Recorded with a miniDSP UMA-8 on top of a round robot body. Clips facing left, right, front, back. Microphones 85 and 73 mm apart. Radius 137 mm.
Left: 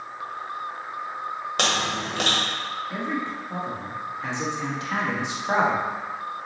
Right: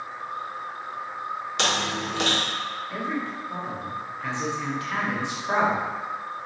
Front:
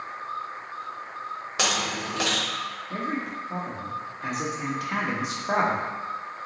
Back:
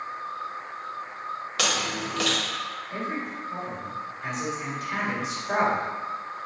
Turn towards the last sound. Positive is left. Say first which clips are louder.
# left 1 dB, front 3 dB
turn(degrees=20)